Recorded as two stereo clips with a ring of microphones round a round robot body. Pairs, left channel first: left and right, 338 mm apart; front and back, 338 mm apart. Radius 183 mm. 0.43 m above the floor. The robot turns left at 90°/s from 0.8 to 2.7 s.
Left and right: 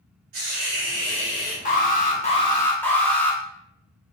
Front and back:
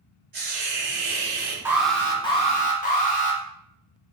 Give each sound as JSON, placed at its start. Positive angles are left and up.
{"t": 0.3, "sound": "a hiss", "azimuth_deg": -115, "distance_m": 1.5}
{"t": 1.6, "sound": "an alarm", "azimuth_deg": 110, "distance_m": 0.8}